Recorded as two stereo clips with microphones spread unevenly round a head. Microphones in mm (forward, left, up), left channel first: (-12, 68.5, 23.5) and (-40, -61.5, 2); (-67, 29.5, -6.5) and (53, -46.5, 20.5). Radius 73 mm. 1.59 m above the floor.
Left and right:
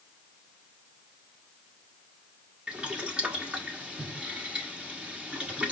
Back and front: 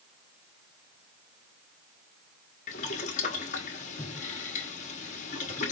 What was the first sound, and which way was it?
Boiling, 170° left.